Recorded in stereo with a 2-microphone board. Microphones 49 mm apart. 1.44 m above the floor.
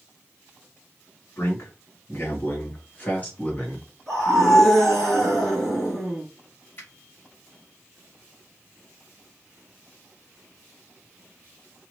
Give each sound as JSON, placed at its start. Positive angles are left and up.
{"t": 1.4, "sound": "a man speaking", "side_deg": 55, "distance_m": 2.0}
{"t": 4.1, "sound": "a scream", "side_deg": 5, "distance_m": 2.5}
{"t": 6.8, "sound": "a finger snap", "side_deg": 45, "distance_m": 2.5}